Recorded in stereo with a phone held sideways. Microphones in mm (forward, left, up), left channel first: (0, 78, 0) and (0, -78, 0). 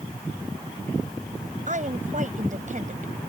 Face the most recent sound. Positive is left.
turn(degrees=-55)  # may be behind; listen again after turning